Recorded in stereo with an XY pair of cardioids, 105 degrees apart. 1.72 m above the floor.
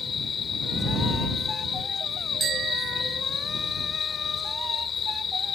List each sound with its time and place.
0.0 s an insect: 40° left
2.4 s a bicycle bell: 65° right